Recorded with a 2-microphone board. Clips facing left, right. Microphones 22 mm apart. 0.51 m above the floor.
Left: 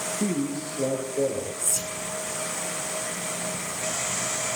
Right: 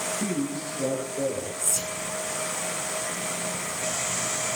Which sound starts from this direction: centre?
Whispering, at 1.6 s.